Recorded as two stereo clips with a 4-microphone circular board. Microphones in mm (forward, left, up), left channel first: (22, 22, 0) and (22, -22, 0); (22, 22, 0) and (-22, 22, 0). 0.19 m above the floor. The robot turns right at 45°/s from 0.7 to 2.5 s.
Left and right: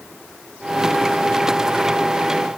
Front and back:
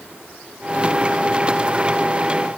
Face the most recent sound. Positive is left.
No sound to turn to.